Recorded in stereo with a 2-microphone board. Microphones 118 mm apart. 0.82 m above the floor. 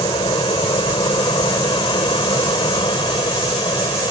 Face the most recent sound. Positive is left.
turn(degrees=40)  # may be behind; listen again after turning